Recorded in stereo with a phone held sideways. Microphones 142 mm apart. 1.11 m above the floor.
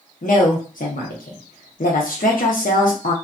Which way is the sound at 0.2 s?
85° left.